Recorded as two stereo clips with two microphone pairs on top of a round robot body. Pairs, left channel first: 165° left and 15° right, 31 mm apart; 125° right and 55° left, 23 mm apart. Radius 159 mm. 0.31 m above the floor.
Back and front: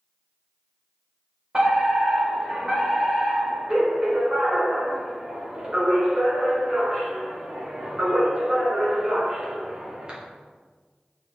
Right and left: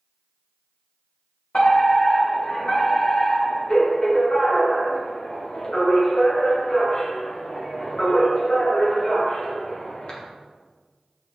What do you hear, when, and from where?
1.5 s a fire alarm: 80° right, 3 m